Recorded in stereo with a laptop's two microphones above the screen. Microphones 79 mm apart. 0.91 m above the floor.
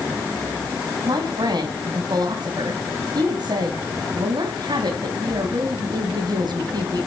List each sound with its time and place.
1.1 s a man speaking: 60° right (ahead or behind), 5 m